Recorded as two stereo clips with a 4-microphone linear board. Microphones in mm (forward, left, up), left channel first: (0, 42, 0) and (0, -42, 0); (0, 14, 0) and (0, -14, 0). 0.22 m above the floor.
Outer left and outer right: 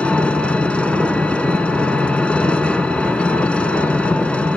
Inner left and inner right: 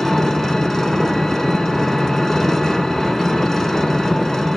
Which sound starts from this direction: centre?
An engine running, at 0.0 s.